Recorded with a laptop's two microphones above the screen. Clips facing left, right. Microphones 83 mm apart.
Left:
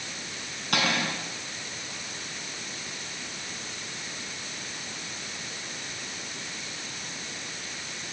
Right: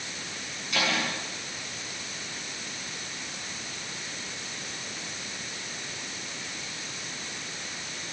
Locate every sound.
0.7 s cutlery clinking: 65° left (ahead or behind), 6.5 m